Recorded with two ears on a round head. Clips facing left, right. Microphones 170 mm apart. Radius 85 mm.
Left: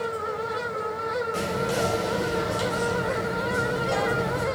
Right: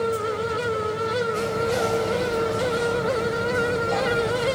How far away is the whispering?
About 2.5 m.